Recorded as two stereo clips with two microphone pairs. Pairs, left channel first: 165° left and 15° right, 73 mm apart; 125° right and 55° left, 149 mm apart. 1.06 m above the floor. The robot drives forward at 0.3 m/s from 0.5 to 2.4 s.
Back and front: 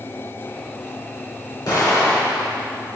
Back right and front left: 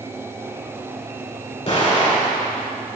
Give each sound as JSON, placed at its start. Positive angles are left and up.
{"t": 1.7, "sound": "an explosion", "azimuth_deg": -170, "distance_m": 2.5}